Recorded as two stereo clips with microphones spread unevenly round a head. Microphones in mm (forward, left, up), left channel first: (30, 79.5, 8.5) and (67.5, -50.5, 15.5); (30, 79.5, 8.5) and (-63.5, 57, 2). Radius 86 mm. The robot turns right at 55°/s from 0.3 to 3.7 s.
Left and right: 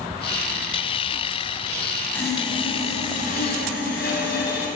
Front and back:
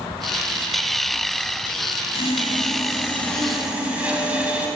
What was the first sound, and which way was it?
Sawing, 30° left.